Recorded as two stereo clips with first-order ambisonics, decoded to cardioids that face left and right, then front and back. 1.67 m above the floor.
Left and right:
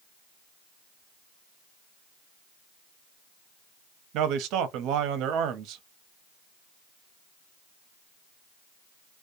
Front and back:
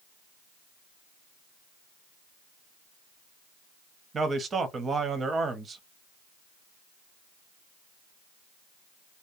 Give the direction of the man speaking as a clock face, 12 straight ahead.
4 o'clock.